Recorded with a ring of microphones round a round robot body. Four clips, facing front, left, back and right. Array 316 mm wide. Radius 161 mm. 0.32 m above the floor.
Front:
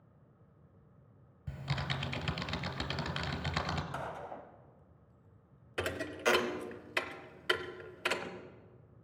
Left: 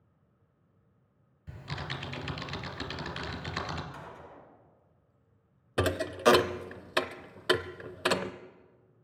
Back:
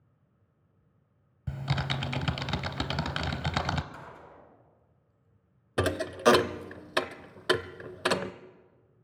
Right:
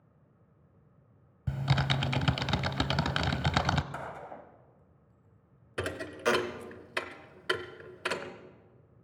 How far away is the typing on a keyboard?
About 0.8 m.